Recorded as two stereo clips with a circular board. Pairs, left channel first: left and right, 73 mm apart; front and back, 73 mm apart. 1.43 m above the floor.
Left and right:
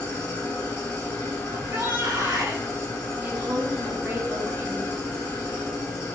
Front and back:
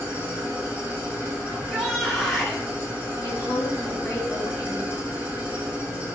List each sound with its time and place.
0.0 s an engine running: 115° left, 1.4 m
1.5 s a shout: 85° right, 1.0 m
3.2 s a woman speaking: 30° right, 0.8 m